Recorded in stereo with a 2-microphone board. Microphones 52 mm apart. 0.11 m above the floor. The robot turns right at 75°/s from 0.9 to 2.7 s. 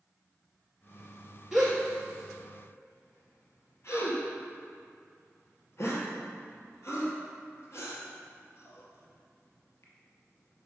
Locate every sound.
1.5 s a gasp: 5° right (ahead or behind), 2 m; by 10.7 s 55° left (ahead or behind), 2 m